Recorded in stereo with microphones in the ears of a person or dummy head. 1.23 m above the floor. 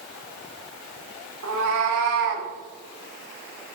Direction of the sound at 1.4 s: 75° right (ahead or behind).